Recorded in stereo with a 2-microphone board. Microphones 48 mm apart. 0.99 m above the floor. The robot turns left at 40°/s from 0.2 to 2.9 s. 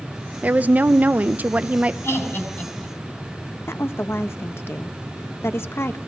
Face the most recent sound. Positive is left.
turn(degrees=60)  # may be behind; listen again after turning